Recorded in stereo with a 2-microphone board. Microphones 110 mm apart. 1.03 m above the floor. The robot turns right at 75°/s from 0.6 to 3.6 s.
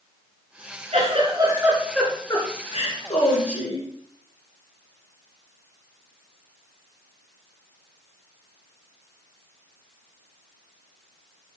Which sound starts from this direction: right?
A giggle, at 0.9 s.